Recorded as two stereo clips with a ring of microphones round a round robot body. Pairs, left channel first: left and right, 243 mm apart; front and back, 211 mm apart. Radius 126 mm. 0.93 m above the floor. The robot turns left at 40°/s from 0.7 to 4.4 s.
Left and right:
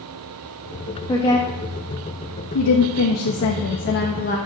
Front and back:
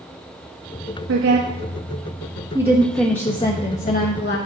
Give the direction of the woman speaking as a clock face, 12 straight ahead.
7 o'clock.